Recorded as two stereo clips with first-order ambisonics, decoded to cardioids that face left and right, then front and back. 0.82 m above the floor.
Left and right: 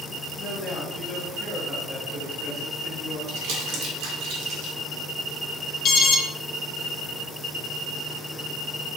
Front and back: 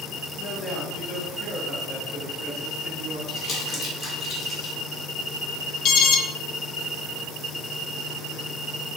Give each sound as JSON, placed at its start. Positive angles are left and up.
{"t": 0.4, "sound": "a man speaking", "azimuth_deg": 45, "distance_m": 0.8}
{"t": 3.3, "sound": "crumpling", "azimuth_deg": -60, "distance_m": 1.4}
{"t": 5.8, "sound": "an alarm", "azimuth_deg": 35, "distance_m": 0.5}